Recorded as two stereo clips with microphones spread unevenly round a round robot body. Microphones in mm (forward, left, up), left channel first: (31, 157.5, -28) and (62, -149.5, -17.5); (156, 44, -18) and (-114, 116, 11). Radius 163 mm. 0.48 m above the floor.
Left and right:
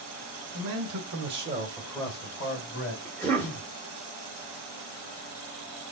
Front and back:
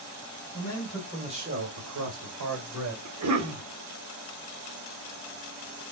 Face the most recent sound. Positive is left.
turn(degrees=180)